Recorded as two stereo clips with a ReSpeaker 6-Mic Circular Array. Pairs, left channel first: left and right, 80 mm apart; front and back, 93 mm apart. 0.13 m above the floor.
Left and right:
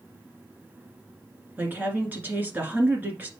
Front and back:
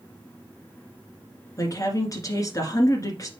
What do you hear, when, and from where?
1.6 s a woman speaking: 35° right, 1.8 m